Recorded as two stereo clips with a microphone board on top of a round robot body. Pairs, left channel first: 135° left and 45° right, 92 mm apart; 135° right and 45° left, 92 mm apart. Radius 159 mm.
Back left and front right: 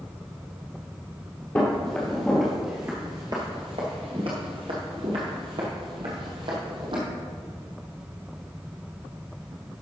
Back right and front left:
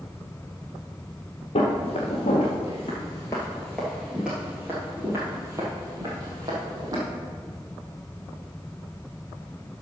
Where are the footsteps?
155° right, 1.4 m; by 7.0 s 5° right, 2 m.